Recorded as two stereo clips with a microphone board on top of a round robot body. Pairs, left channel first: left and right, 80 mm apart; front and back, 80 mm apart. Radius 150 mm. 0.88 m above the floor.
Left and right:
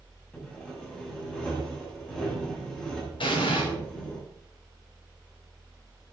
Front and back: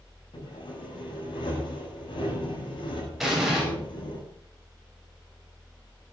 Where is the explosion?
95° left, 5 m.